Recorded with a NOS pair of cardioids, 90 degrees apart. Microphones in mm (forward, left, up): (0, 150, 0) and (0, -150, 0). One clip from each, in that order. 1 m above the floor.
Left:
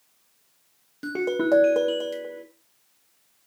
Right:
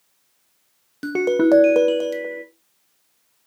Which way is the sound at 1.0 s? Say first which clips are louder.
Right 7 dB; 35° right.